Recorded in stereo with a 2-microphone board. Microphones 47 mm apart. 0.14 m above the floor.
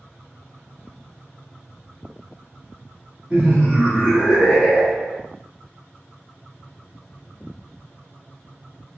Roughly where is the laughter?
Centre.